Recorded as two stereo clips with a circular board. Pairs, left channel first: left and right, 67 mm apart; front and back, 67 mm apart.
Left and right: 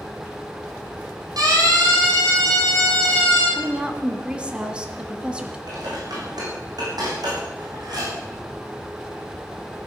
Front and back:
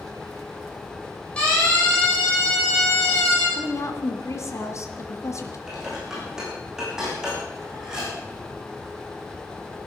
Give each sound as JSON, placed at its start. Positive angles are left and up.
{"t": 1.4, "sound": "a siren", "azimuth_deg": -75, "distance_m": 8.5}
{"t": 3.6, "sound": "a woman speaking", "azimuth_deg": -20, "distance_m": 2.0}
{"t": 5.7, "sound": "dishes clattering", "azimuth_deg": -100, "distance_m": 6.5}